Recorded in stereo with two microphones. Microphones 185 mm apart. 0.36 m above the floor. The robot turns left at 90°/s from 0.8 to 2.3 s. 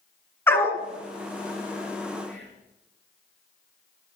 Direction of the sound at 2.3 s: Centre (ahead or behind).